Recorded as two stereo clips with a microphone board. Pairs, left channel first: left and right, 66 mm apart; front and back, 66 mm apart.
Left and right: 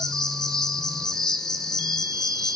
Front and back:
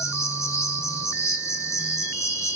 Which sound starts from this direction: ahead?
An insect, at 0.0 s.